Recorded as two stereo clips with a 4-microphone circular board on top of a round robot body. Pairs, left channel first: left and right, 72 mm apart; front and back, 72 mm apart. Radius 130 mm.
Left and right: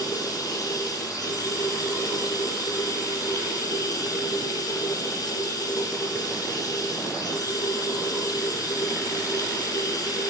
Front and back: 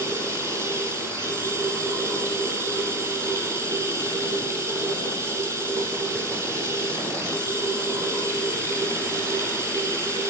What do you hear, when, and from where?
0.0 s running water: 130° left, 7.5 m